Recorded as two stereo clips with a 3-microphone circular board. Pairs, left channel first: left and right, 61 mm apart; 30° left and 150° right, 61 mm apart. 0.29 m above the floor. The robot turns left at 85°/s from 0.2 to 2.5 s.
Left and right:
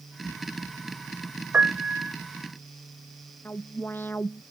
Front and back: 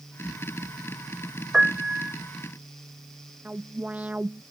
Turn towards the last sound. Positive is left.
turn(degrees=145)